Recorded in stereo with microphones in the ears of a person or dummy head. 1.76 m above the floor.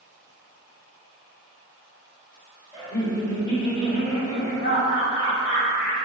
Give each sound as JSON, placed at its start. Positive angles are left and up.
{"t": 2.7, "sound": "laughter", "side_deg": 10, "distance_m": 1.2}